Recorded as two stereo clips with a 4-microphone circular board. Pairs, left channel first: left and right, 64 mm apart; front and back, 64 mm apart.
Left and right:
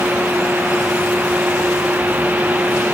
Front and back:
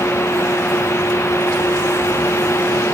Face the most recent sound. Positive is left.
No sound to turn to.